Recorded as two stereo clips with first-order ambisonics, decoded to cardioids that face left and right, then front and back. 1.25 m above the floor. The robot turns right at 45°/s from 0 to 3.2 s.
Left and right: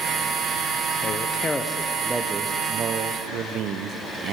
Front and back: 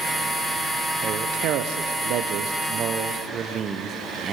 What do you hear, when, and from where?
1.0 s a man speaking: 140° left, 0.5 m; by 4.3 s 120° right, 0.5 m